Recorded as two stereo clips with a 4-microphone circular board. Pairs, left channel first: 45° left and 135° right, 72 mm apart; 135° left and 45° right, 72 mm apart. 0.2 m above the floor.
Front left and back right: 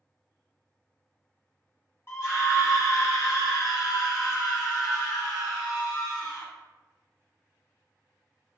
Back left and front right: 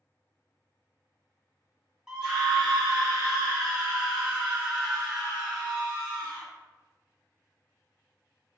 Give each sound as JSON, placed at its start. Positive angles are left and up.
{"t": 2.1, "sound": "a scream", "azimuth_deg": 30, "distance_m": 1.4}